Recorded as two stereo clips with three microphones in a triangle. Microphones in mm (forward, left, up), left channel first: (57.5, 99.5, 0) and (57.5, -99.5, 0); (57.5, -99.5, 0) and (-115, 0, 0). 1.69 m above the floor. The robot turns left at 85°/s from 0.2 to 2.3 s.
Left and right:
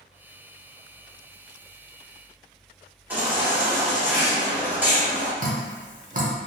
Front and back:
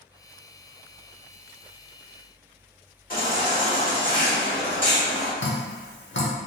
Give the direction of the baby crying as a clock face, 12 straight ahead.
12 o'clock.